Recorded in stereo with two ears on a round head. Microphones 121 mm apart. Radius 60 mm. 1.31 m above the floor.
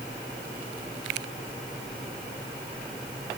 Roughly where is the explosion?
No explosion in this recording.